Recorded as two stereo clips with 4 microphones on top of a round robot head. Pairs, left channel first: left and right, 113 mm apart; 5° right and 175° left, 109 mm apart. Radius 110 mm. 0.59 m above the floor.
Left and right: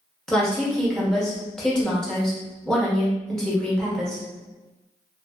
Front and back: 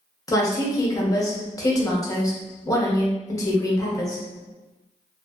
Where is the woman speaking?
10° left, 1.0 m.